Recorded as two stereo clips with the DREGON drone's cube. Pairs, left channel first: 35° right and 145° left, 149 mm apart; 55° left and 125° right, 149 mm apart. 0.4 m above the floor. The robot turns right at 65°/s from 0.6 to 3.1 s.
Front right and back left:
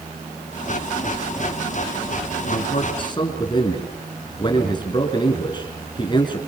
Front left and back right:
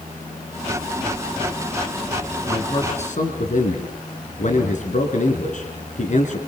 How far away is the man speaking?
About 5 m.